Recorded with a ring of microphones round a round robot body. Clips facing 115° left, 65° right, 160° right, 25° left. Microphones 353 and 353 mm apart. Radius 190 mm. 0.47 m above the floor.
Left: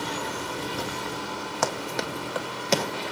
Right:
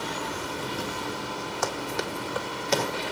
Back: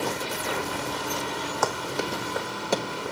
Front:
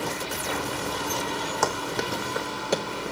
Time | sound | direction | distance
1.6 | running footsteps | 80° left | 1.7 m